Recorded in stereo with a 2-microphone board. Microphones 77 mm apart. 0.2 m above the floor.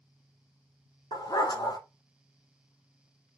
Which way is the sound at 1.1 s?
65° left (ahead or behind).